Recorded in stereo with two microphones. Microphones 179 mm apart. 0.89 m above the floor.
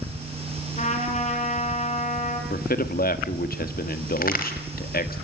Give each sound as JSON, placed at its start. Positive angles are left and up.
{"t": 0.8, "sound": "a trumpet", "side_deg": 40, "distance_m": 5.0}
{"t": 2.5, "sound": "a man speaking", "side_deg": 55, "distance_m": 1.9}
{"t": 4.2, "sound": "a crack", "side_deg": 55, "distance_m": 4.0}